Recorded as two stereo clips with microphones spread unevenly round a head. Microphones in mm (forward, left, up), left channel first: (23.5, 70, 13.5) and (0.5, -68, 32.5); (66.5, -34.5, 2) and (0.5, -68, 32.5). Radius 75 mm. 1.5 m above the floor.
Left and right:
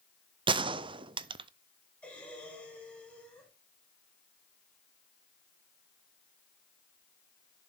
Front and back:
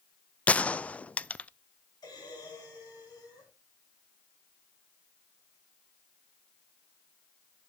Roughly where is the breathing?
Ahead.